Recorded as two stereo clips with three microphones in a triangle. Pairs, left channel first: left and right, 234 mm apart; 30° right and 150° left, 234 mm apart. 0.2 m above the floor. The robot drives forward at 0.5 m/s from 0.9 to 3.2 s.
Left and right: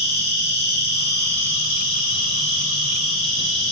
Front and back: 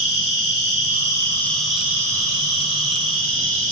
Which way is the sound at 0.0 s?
85° right.